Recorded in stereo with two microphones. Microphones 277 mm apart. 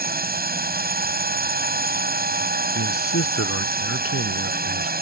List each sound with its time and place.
0.0 s a drone: 35° right (ahead or behind)
2.8 s a man speaking: 55° left (ahead or behind)